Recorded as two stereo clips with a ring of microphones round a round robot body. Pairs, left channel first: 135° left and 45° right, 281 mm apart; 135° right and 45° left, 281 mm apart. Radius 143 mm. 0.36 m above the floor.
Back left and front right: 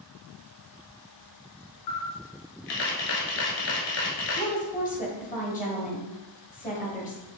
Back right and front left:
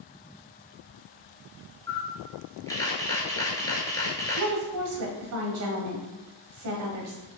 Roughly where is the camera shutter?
Behind left.